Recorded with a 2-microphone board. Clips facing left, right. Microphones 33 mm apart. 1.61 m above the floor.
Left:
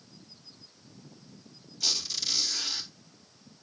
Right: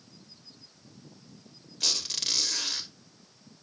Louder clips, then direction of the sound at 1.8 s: Right 1 dB; 60° right (ahead or behind).